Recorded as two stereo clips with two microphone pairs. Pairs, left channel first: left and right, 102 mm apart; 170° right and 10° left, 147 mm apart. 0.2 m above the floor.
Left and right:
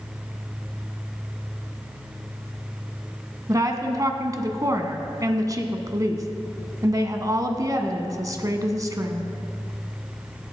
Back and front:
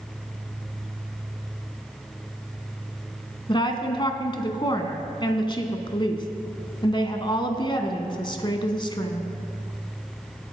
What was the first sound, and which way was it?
A woman speaking, 125° right.